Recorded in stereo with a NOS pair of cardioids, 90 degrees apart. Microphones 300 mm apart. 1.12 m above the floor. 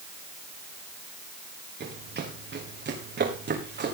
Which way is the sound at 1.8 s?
35° right.